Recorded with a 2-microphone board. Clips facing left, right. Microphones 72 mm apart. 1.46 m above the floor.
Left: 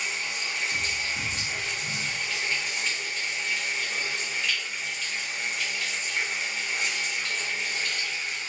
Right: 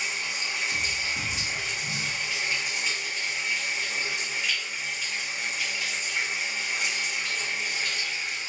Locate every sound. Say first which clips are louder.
0.0 s running water: even; 5° right (ahead or behind), 0.8 m